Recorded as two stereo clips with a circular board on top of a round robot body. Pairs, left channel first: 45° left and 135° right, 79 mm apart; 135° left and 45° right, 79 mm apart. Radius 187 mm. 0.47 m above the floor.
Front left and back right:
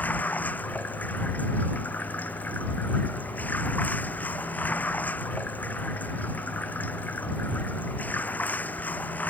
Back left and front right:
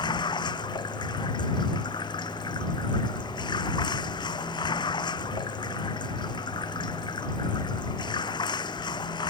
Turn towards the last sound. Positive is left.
turn(degrees=115)